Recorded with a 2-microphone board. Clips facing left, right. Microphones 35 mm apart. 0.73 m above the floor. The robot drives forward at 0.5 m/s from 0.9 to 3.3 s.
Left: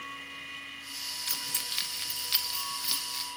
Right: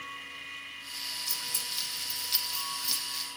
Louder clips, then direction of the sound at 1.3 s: Left 1 dB; 50° left (ahead or behind).